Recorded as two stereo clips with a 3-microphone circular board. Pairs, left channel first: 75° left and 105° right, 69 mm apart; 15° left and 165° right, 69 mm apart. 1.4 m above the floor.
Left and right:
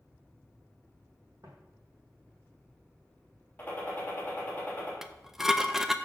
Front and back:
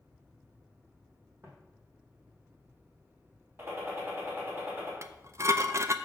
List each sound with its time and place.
1.4 s footsteps: 120° right, 2.5 m
3.6 s a gunshot: 140° left, 3 m
5.0 s dishes clattering: 170° left, 0.5 m